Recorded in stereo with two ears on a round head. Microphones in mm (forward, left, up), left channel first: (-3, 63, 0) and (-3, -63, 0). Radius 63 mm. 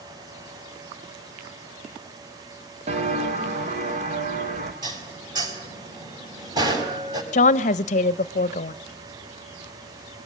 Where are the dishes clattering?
30° right (ahead or behind), 4 m.